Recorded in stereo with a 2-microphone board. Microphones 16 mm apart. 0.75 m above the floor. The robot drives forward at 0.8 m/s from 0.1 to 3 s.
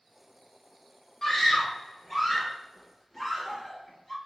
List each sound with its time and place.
1.2 s a scream: 25° left (ahead or behind), 1.2 m; by 4.2 s 10° left (ahead or behind), 2.5 m